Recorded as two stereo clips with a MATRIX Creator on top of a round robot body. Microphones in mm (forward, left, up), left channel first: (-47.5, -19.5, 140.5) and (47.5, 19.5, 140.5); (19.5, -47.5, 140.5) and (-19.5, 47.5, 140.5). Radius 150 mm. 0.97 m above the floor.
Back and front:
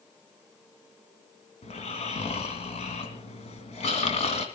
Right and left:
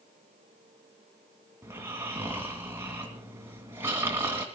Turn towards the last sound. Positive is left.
turn(degrees=180)